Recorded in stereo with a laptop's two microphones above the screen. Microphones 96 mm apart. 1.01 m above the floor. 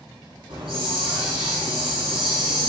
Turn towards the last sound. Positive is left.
turn(degrees=-80)